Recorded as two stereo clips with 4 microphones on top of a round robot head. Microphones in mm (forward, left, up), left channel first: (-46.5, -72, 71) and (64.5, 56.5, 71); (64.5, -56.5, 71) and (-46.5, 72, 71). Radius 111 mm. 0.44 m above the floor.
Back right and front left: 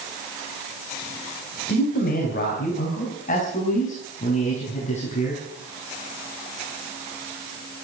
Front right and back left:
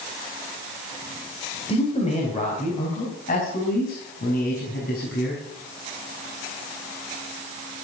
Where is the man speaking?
105° right, 3.5 m; by 5.4 s 80° right, 6 m.